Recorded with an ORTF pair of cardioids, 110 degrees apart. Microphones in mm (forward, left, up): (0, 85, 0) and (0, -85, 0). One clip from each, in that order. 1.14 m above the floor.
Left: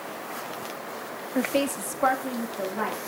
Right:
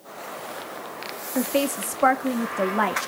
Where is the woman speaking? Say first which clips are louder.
Right 2 dB; straight ahead, 1.7 m; by 3.1 s 55° right, 2 m.